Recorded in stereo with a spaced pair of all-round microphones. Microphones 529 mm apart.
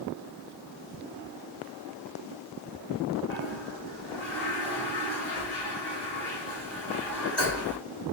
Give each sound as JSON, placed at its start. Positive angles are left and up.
{"t": 3.3, "sound": "a toilet flushing", "side_deg": 70, "distance_m": 2.5}